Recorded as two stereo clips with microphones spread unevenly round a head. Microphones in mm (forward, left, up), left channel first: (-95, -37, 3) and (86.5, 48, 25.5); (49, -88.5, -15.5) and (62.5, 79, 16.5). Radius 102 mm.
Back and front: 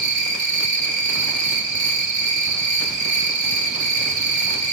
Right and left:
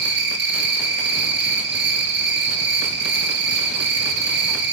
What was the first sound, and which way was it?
An insect, 80° left.